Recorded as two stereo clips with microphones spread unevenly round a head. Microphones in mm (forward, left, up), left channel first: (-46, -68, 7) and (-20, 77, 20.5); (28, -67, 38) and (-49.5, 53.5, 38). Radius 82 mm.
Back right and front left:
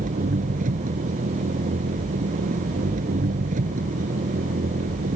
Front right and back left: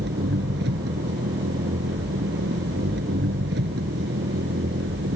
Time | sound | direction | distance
0.0 | an engine running | 115° left | ?